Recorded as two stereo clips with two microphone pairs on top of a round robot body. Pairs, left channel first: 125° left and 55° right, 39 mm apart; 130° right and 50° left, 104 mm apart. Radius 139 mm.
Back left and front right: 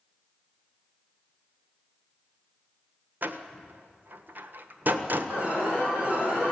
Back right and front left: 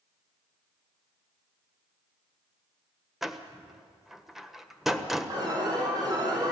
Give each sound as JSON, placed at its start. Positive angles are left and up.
{"t": 3.2, "sound": "a door slam", "azimuth_deg": -35, "distance_m": 1.5}
{"t": 5.3, "sound": "an alarm", "azimuth_deg": 0, "distance_m": 7.0}